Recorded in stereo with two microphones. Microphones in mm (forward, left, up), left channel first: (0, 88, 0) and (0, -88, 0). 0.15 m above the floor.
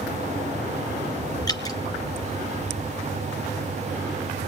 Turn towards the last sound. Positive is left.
turn(degrees=20)  # may be behind; listen again after turning